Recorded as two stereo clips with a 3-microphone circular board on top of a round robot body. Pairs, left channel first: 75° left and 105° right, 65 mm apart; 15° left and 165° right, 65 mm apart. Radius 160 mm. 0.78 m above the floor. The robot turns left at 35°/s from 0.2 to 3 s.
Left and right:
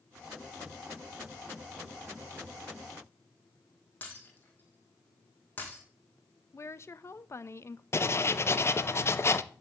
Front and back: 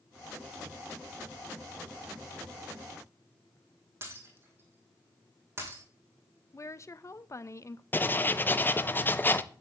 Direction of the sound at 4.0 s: 140° left.